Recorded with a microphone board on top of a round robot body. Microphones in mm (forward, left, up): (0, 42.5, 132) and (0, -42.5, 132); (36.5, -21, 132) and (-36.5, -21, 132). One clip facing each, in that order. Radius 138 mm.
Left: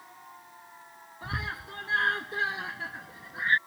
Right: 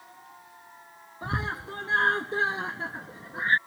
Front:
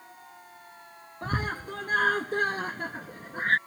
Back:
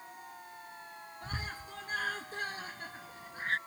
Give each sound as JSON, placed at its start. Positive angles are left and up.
{"t": 1.2, "sound": "a scream", "azimuth_deg": -35}